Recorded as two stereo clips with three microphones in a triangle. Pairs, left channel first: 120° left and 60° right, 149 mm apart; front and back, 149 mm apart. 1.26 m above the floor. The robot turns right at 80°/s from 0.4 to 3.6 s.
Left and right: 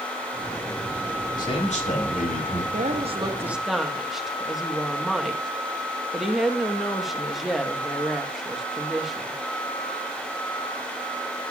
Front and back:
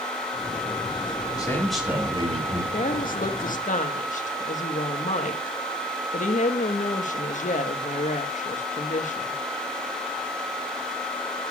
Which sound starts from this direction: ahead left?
A man speaking, at 1.4 s.